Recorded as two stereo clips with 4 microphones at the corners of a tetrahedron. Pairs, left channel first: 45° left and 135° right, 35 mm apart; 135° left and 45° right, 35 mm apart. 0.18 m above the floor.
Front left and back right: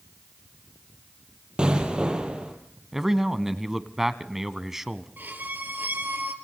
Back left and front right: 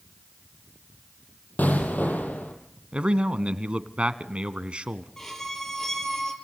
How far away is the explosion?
About 4.5 m.